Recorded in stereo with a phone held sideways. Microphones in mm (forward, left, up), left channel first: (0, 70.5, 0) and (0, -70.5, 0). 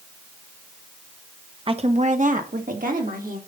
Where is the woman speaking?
40° right (ahead or behind), 0.9 m; by 3.4 s 80° right, 3 m.